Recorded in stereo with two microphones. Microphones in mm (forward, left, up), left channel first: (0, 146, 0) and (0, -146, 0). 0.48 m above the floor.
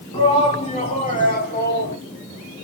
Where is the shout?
15° left (ahead or behind), 4 m; by 2.0 s 35° left (ahead or behind), 3.5 m.